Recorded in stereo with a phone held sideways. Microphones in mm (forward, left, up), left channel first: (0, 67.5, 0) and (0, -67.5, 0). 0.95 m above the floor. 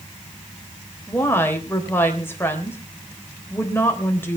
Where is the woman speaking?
15° left (ahead or behind), 3.5 m.